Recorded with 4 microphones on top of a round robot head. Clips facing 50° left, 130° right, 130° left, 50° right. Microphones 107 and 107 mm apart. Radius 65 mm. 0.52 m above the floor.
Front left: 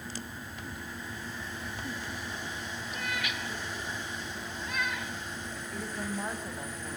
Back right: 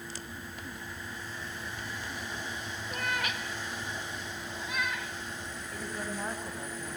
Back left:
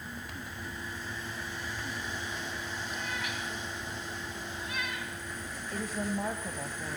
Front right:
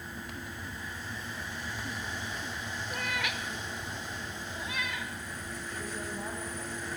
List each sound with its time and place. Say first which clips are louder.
2.9 s a cat meowing: back right 3 dB, front right 4 dB; 85° right, 1.3 m; by 5.1 s 35° right, 2.0 m
5.7 s a woman speaking: front left 1 dB, back left 6 dB; 135° left, 2.5 m